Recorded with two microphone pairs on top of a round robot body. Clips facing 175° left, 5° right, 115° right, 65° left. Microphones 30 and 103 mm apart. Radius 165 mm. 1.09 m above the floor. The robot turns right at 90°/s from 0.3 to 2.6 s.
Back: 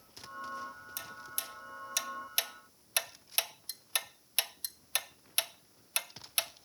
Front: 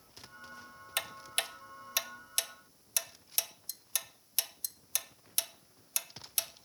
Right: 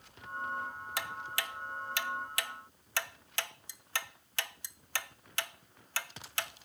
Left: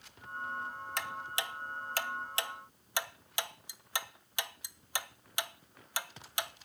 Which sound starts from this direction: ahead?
Ticking, at 1.0 s.